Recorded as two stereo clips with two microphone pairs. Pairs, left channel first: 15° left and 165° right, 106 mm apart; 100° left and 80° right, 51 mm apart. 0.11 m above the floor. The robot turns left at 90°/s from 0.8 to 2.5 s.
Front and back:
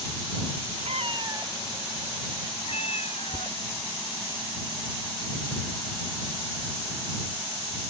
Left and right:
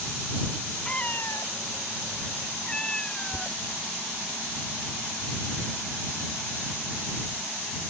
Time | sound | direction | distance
0.8 | a cat meowing | 175° left | ?
3.3 | a thud | 115° right | ?